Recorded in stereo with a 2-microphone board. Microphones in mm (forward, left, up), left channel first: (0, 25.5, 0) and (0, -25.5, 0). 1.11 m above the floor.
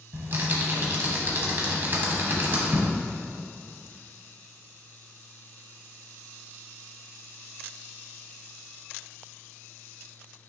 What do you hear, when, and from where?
0.1 s typing on a keyboard: 45° right (ahead or behind), 1.6 m